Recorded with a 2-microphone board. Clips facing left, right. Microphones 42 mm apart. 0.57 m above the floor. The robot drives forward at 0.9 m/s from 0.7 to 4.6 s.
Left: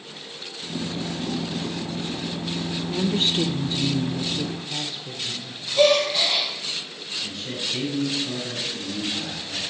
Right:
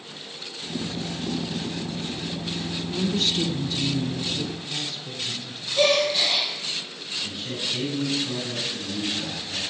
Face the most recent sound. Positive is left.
turn(degrees=-10)  # may be behind; listen again after turning